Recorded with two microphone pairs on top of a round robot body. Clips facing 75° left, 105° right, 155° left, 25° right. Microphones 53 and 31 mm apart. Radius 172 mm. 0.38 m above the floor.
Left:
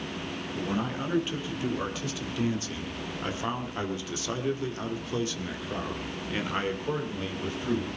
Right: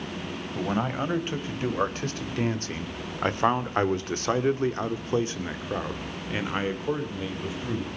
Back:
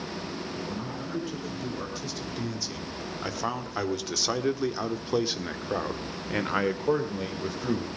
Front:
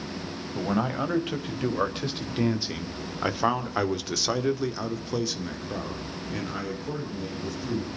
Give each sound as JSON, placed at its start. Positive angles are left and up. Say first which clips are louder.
{"t": 0.6, "sound": "a man speaking", "louder": "right 4 dB, front 8 dB", "azimuth_deg": -55, "distance_m": 4.5}